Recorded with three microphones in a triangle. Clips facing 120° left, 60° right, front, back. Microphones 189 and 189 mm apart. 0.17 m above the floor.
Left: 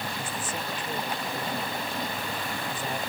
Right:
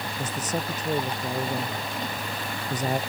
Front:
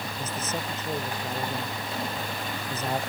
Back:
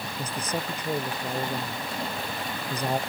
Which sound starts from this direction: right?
A man speaking, at 0.2 s.